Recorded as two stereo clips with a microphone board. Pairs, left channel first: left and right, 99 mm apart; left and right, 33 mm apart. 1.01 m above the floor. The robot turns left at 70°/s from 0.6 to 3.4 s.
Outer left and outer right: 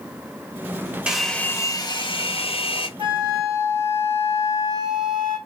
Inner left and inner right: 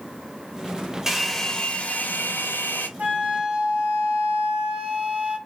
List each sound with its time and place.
1.1 s a hair dryer: 170° right, 0.6 m; by 2.9 s 60° left, 0.6 m
3.0 s a flute: 60° right (ahead or behind), 1.8 m; by 5.4 s 30° right (ahead or behind), 1.8 m